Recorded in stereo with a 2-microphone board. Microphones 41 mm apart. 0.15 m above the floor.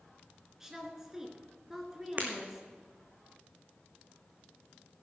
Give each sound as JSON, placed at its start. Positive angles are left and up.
{"t": 0.6, "sound": "a woman speaking", "side_deg": -10, "distance_m": 2.0}
{"t": 2.2, "sound": "breaking glass", "side_deg": -45, "distance_m": 3.0}